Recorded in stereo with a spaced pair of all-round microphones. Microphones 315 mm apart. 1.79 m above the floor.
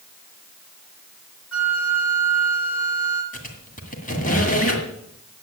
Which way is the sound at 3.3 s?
25° left (ahead or behind).